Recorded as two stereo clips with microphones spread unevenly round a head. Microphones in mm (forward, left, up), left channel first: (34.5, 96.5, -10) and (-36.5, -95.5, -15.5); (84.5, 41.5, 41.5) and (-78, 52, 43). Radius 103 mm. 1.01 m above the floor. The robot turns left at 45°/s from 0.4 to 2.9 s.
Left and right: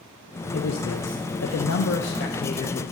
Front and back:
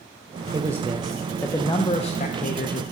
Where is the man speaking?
110° left, 0.5 m; by 2.8 s 10° left, 0.5 m.